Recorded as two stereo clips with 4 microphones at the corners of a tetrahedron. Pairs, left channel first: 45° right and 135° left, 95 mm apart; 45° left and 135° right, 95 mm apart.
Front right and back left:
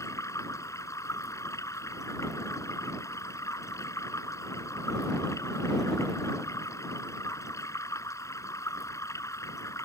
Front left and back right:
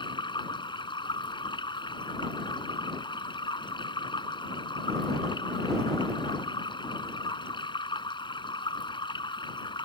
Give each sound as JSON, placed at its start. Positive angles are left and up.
{"t": 0.0, "sound": "running water", "azimuth_deg": 10}